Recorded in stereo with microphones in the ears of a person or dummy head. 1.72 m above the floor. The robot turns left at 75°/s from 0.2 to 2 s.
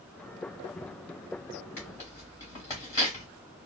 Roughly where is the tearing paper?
Centre.